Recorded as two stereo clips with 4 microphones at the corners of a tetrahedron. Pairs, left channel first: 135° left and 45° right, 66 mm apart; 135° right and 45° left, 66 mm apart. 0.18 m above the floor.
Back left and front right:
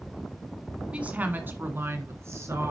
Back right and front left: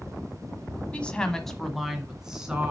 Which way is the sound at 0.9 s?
90° right.